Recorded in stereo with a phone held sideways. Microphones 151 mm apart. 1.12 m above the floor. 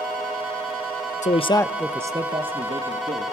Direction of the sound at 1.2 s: 55° left (ahead or behind).